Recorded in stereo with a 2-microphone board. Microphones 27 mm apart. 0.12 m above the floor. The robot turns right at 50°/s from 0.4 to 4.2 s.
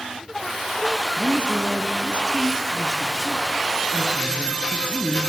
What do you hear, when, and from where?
1.2 s a woman speaking: 115° right, 1.8 m; by 5.2 s 40° left, 1.8 m